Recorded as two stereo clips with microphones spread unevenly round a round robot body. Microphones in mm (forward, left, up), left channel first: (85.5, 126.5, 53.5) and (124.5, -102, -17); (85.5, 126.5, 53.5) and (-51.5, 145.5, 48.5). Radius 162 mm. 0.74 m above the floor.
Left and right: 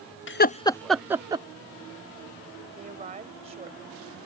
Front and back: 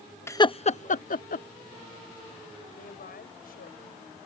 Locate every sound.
0.3 s laughter: 60° left; by 1.5 s 15° right
2.8 s a woman speaking: 20° right